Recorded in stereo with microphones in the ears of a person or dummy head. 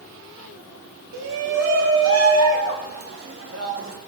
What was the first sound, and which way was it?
A shout, 55° right (ahead or behind).